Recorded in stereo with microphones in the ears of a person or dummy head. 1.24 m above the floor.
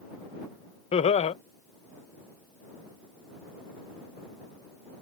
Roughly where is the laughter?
Left.